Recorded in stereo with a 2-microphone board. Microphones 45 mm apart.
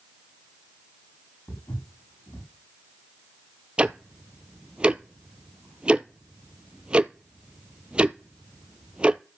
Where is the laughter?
I don't hear laughter.